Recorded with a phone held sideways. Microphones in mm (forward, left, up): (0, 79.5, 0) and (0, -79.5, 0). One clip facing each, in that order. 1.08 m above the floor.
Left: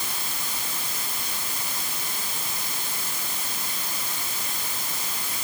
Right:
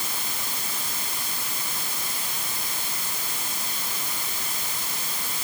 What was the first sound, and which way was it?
Only background noise.